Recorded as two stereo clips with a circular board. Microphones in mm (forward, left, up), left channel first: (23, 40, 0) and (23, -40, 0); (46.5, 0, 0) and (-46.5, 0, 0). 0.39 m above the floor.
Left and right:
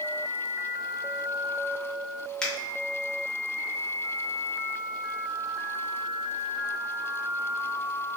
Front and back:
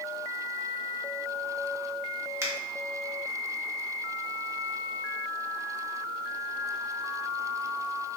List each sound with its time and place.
2.4 s a finger snap: 165° left, 0.6 m